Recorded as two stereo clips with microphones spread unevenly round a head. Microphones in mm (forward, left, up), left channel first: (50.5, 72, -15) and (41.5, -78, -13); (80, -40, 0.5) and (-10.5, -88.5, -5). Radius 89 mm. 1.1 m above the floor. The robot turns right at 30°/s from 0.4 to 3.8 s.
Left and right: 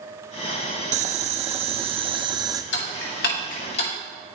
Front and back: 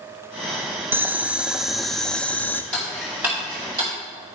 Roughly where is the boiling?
Right.